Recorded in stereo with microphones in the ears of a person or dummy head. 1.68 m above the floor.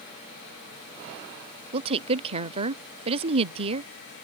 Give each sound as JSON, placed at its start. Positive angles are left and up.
{"t": 1.7, "sound": "a woman speaking", "side_deg": -35}